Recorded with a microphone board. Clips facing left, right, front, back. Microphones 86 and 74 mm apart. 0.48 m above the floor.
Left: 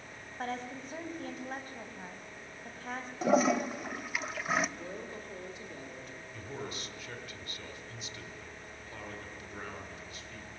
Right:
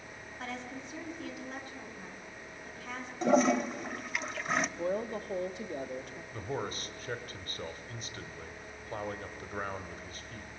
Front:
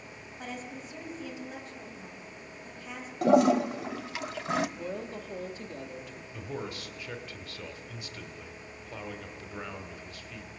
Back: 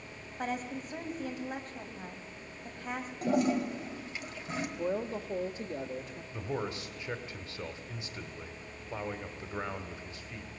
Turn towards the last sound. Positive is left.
turn(degrees=-120)